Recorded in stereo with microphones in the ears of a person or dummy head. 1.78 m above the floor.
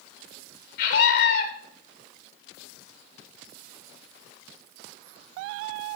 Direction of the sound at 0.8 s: 55° left (ahead or behind).